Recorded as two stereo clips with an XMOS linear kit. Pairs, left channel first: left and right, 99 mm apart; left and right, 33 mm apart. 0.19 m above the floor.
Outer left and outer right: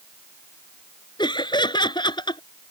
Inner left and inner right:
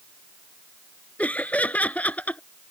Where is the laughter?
55° left (ahead or behind).